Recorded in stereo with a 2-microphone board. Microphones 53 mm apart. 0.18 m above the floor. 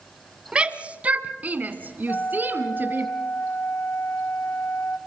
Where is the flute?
40° left (ahead or behind), 1.2 m.